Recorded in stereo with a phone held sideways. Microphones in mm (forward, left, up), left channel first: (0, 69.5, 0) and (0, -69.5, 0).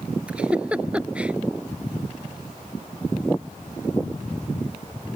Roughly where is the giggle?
Centre.